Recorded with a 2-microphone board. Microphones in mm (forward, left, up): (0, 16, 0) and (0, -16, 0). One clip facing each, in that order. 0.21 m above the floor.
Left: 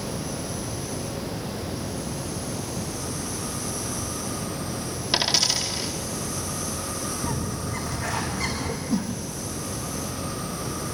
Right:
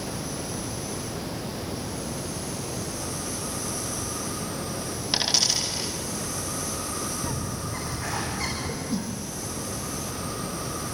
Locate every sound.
5.1 s a dropped coin: 5° left (ahead or behind), 4.5 m
7.2 s a bird: 10° right (ahead or behind), 5 m
8.9 s a whoosh: centre (ahead or behind), 4 m